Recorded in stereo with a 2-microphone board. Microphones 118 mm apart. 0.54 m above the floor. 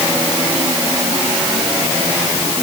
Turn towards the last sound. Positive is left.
No sound to turn to.